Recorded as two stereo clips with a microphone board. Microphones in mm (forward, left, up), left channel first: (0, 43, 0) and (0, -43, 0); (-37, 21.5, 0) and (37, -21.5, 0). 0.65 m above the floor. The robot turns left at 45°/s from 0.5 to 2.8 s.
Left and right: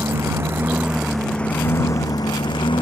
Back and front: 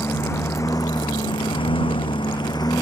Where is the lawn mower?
150° right; by 2.8 s 105° left.